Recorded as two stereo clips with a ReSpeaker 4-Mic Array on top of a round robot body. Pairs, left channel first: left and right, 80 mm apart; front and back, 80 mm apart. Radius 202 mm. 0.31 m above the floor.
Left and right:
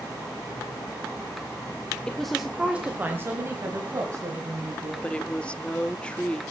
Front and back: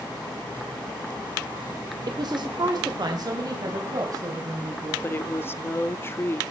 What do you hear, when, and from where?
2.1 s a woman speaking: 165° left, 1.6 m; by 4.9 s 130° right, 4.5 m
5.0 s a woman speaking: 25° left, 1.1 m